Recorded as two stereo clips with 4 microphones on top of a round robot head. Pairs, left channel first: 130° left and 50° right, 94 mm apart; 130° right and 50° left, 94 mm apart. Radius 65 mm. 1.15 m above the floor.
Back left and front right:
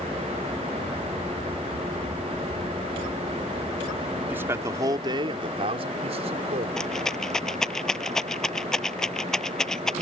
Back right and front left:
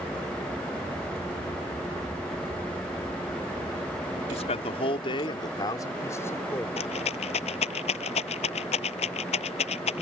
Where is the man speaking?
120° right; by 6.7 s 60° right.